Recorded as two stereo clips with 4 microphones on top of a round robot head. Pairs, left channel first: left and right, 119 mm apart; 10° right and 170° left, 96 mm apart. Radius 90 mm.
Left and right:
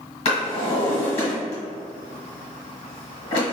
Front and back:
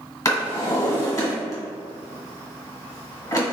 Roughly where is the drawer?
Ahead left.